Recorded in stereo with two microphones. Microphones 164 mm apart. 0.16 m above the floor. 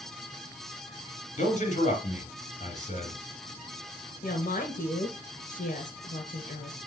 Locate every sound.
1.4 s a man speaking: 45° left (ahead or behind), 3 m
4.2 s a woman speaking: 55° left (ahead or behind), 2.5 m